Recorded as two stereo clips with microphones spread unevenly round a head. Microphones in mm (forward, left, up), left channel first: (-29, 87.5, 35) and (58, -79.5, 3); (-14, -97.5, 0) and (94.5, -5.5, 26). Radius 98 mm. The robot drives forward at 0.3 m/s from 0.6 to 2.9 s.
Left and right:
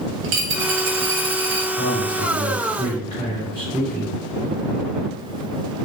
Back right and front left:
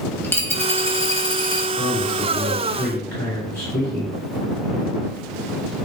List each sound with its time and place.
0.2 s a dropped coin: 60° right, 1.2 m; by 1.7 s 85° right, 1.1 m
1.8 s a man speaking: 175° right, 2 m